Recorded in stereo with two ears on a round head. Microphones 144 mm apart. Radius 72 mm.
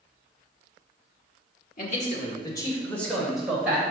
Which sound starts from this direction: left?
A man speaking, at 1.8 s.